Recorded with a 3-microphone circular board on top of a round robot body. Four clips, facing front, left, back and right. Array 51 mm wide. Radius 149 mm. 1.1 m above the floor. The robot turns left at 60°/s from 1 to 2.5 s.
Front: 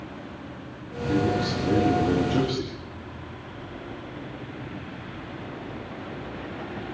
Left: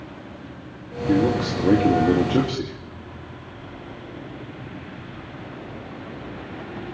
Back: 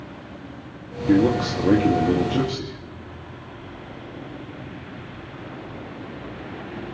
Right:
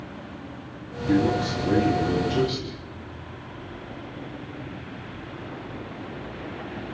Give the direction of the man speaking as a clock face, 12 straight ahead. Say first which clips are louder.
Left 2 dB, back 6 dB; 7 o'clock.